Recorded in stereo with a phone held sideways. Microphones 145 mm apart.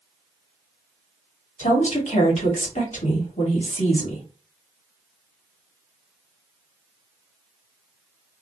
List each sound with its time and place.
1.6 s a woman speaking: 55° left (ahead or behind), 1.5 m